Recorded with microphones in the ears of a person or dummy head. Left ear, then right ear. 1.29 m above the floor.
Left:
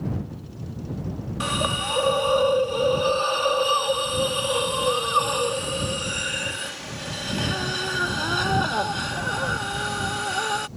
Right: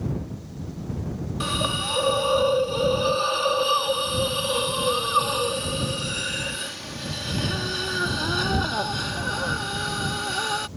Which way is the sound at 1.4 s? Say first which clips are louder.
Left 1 dB; 20° left (ahead or behind).